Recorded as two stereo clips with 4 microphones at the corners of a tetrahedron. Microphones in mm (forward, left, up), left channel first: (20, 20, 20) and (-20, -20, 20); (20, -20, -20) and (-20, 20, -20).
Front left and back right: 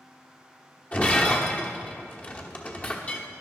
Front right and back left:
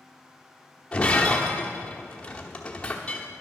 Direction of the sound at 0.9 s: 15° left.